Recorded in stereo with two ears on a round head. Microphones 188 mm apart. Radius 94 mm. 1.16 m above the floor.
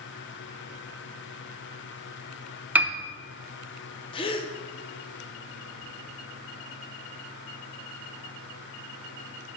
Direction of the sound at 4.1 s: 25° left (ahead or behind).